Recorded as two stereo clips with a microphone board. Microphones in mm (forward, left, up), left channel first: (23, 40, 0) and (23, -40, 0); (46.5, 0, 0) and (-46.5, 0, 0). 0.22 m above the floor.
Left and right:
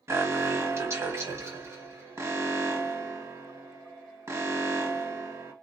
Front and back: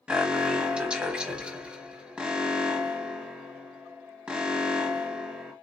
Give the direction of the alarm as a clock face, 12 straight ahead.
4 o'clock.